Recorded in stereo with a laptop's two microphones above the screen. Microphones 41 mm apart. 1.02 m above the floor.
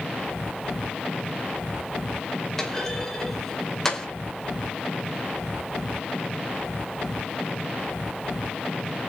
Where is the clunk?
15° left (ahead or behind), 2 m.